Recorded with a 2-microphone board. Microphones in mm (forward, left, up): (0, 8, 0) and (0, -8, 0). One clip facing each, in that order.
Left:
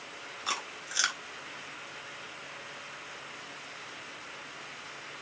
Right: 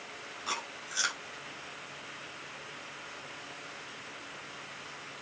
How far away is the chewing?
About 1.7 m.